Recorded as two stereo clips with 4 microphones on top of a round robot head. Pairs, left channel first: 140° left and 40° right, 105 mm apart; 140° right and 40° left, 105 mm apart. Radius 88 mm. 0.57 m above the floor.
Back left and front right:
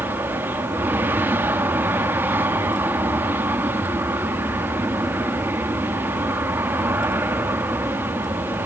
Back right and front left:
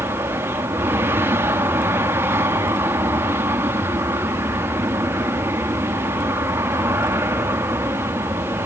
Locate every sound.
0.0 s an aircraft: 5° left